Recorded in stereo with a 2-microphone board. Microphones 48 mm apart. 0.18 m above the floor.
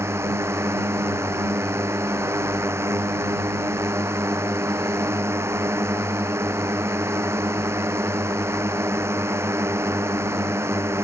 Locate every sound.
0.0 s a drone: 70° right (ahead or behind)